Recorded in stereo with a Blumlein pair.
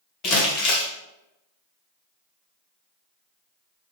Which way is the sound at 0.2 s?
30° left.